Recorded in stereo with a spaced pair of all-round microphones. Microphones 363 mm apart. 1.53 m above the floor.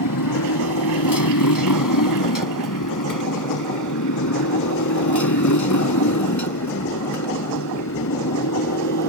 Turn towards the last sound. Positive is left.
turn(degrees=45)  # may be behind; listen again after turning